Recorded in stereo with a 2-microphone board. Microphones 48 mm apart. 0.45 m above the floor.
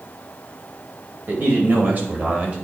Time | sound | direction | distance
1.3 | a man speaking | 50° right (ahead or behind) | 2.5 m